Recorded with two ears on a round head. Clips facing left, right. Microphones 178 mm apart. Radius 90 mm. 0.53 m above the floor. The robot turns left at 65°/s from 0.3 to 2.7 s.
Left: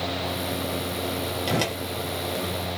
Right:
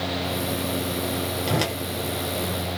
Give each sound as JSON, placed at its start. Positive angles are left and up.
{"t": 1.5, "sound": "a whoosh", "side_deg": 5, "distance_m": 0.7}